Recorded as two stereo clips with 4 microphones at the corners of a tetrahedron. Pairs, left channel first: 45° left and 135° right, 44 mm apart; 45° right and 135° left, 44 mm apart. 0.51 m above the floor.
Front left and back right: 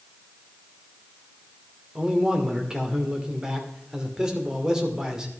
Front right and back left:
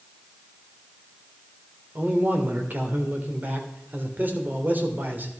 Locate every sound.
1.9 s a man speaking: 150° left, 2.0 m